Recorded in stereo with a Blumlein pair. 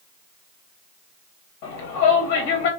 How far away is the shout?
About 1.6 m.